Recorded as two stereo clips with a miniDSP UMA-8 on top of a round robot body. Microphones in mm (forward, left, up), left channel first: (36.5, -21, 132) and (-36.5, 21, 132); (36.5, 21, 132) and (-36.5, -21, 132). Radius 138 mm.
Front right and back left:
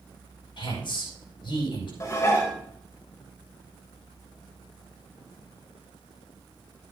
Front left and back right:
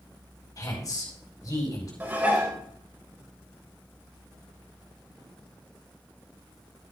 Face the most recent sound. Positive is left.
turn(degrees=-85)